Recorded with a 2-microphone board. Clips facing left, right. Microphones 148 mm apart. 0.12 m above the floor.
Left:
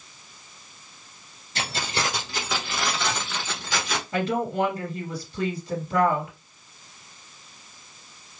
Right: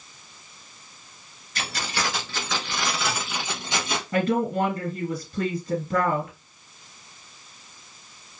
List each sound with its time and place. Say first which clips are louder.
1.6 s keys jangling: left 1 dB; 30° left (ahead or behind), 1.3 m; by 4.0 s 30° right (ahead or behind), 1.2 m
4.1 s a woman speaking: right 2 dB; 45° right (ahead or behind), 2.5 m